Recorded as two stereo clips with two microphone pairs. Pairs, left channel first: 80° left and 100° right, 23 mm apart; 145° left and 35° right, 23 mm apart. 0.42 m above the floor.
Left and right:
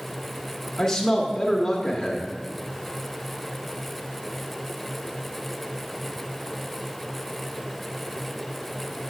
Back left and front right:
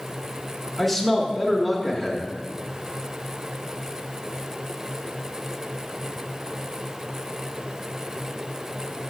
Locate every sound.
0.8 s a man speaking: 80° left, 0.8 m